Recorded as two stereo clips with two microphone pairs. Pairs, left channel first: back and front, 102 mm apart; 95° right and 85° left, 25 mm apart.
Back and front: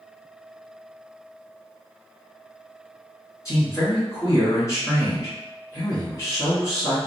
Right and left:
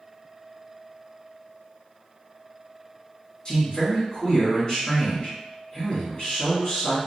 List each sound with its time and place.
3.5 s a man speaking: 145° right, 1.9 m